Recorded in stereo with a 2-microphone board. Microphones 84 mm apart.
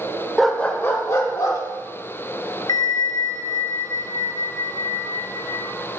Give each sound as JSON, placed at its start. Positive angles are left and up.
{"t": 0.4, "sound": "a dog barking", "side_deg": 0, "distance_m": 0.9}
{"t": 2.7, "sound": "a bell", "side_deg": 55, "distance_m": 0.7}